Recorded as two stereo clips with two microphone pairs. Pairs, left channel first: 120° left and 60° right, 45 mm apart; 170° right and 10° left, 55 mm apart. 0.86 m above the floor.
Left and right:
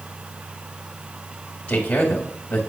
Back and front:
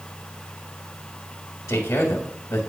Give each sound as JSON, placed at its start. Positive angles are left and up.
{"t": 1.7, "sound": "a man speaking", "azimuth_deg": 180, "distance_m": 1.6}